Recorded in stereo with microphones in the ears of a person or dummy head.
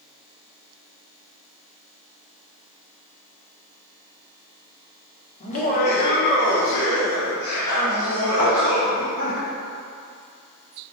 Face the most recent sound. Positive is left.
turn(degrees=30)  # may be behind; listen again after turning